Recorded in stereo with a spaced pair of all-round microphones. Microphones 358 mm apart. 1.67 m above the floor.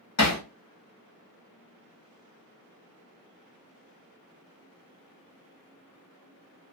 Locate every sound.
0.2 s hammering: 45° left (ahead or behind), 0.9 m